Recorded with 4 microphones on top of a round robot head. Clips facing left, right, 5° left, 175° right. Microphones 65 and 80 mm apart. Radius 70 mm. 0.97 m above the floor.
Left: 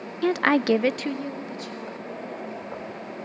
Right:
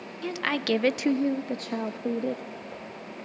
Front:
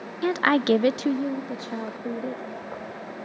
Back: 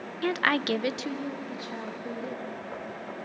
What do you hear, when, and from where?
0.2 s a woman speaking: 75° left, 0.7 m; by 2.5 s 65° right, 1.6 m